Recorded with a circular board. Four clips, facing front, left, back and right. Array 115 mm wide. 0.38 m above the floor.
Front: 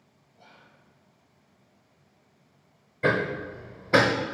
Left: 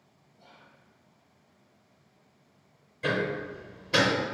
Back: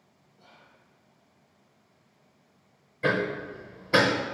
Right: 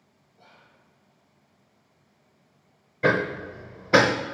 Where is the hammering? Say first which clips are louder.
Right 5 dB, front 1 dB; 75° right, 0.6 m.